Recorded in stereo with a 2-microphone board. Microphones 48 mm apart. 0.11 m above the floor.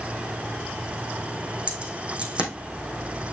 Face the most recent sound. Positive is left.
turn(degrees=-25)  # may be behind; listen again after turning